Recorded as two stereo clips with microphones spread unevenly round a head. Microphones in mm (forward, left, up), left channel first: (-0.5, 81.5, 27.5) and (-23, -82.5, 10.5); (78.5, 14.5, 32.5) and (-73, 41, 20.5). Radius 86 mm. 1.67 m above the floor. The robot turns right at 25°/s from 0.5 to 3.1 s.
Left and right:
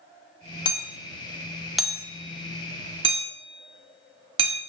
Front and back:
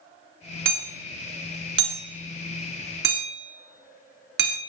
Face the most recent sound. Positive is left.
turn(degrees=-155)